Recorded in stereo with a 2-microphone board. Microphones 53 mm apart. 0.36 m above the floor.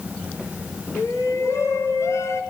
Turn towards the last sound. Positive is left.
turn(degrees=70)  # may be behind; listen again after turning